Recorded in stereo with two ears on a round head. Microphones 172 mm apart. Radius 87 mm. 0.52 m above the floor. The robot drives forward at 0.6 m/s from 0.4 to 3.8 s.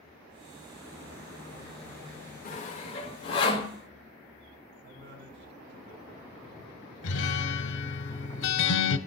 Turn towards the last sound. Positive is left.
turn(degrees=70)  # may be behind; listen again after turning